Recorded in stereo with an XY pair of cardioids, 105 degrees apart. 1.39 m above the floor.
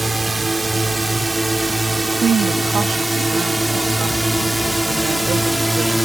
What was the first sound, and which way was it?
A drone, 15° right.